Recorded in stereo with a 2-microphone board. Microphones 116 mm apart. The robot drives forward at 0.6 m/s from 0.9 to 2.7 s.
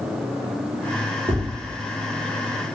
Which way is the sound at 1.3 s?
45° right (ahead or behind).